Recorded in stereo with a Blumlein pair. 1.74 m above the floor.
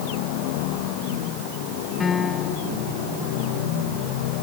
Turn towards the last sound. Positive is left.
turn(degrees=20)